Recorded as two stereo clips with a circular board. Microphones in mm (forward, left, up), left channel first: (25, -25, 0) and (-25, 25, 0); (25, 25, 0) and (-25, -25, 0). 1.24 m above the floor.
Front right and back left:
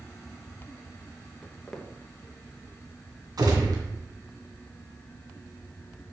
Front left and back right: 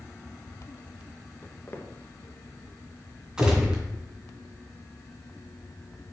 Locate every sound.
1.4 s footsteps: 30° left, 1.3 m
3.4 s a gunshot: 150° left, 2.5 m